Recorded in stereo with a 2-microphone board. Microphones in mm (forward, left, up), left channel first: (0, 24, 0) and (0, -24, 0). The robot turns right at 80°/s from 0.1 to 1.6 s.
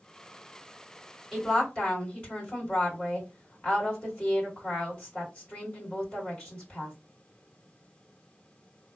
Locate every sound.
1.3 s a woman speaking: 5° left (ahead or behind), 2.5 m; by 7.0 s 25° left (ahead or behind), 2.5 m